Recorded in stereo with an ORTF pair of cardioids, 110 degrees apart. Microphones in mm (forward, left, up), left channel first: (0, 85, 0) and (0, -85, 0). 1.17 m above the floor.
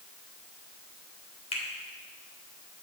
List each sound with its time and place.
1.5 s a finger snap: 35° left, 3 m